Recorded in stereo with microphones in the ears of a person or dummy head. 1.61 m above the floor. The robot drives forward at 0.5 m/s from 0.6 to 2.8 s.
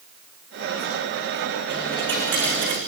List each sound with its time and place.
1.7 s a dropped coin: 15° left (ahead or behind), 7.5 m; by 2.8 s 10° left (ahead or behind), 8 m